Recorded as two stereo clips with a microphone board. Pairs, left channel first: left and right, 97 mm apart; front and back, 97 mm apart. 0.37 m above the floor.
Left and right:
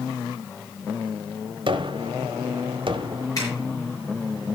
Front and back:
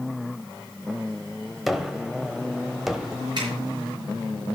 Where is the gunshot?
95° right, 0.9 m.